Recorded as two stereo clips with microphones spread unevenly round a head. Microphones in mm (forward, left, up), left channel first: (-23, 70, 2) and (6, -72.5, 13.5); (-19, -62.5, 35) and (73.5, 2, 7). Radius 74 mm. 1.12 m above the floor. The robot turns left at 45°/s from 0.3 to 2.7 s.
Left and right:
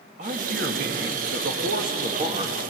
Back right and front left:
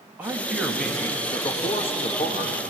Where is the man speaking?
35° right, 2.5 m; by 2.6 s 140° right, 2.5 m.